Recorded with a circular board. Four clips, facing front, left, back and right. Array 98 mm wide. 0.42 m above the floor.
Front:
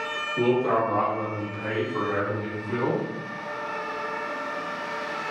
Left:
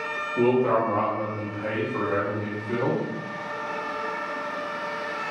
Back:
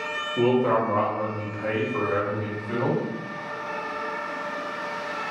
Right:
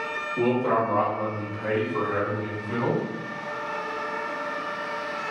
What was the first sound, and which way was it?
A man speaking, 160° left.